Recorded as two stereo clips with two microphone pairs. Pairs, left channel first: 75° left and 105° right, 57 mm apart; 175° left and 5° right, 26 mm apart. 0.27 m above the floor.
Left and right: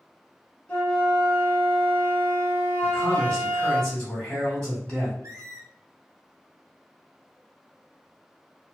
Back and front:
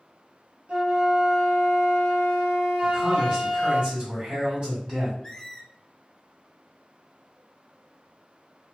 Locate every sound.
0.7 s a flute: 20° left, 0.9 m
2.8 s a man speaking: straight ahead, 1.9 m
5.2 s a squeak: 115° right, 0.9 m